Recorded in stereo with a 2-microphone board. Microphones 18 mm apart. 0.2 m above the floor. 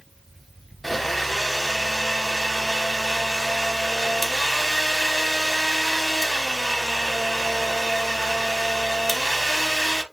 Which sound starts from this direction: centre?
A blender, at 0.8 s.